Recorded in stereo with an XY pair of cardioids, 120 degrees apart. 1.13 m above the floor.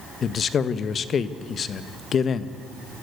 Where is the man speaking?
45° left, 1.2 m.